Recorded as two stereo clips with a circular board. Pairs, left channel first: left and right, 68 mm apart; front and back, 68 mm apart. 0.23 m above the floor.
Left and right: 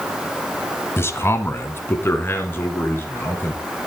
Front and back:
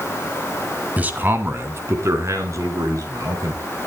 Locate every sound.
1.0 s a man speaking: 125° left, 1.5 m; by 3.6 s 150° left, 4 m